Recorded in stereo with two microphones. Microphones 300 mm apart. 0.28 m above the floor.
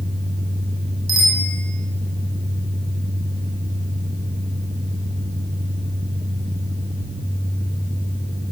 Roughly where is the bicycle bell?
Right.